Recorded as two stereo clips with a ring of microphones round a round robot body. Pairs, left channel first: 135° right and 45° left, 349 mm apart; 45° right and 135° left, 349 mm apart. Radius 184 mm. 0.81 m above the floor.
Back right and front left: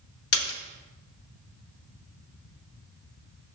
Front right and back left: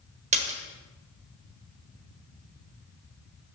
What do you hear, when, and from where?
0.3 s a splash: 160° right, 0.8 m